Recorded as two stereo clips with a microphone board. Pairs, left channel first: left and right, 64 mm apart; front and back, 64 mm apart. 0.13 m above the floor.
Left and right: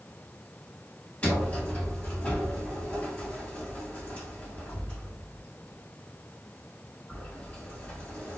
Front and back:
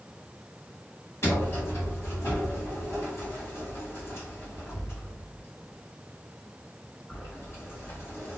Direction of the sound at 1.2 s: 30° left.